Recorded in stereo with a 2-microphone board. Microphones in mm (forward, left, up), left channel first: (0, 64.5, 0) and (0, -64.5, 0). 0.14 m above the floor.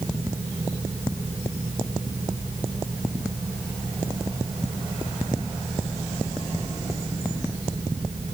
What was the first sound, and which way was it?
Only background noise.